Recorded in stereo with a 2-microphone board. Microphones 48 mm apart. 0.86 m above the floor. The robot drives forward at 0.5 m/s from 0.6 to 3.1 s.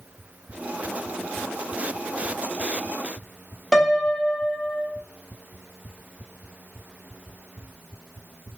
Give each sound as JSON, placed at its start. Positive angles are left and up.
{"t": 3.7, "sound": "a piano", "side_deg": 10, "distance_m": 0.6}